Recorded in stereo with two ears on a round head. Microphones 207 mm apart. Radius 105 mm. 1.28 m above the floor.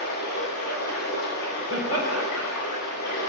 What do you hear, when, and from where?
0.0 s running water: 90° left, 10 m
1.7 s laughter: 70° left (ahead or behind), 5.5 m